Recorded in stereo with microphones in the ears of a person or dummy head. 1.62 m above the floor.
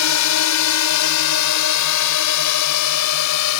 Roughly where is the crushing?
No crushing in this recording.